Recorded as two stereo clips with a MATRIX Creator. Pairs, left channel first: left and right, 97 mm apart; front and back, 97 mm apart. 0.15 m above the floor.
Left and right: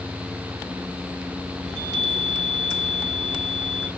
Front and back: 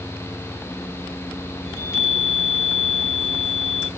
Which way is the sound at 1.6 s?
55° right.